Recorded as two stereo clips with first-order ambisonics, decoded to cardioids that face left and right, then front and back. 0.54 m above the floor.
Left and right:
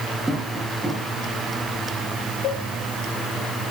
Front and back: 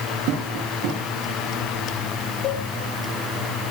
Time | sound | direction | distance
0.3 | tapping | 170° right | 6.5 m
2.4 | a cowbell | 45° left | 3 m